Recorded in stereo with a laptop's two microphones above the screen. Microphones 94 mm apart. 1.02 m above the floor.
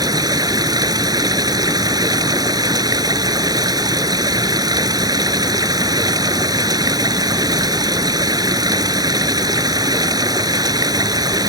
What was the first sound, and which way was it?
Running water, 45° right (ahead or behind).